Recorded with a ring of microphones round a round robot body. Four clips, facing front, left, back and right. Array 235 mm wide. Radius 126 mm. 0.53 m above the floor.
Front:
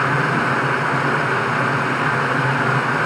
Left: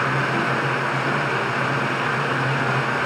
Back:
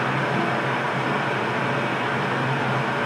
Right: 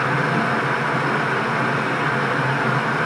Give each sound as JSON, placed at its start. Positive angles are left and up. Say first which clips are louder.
{"t": 0.0, "sound": "running water", "louder": "right 2 dB, front 4 dB", "azimuth_deg": -20, "distance_m": 3.5}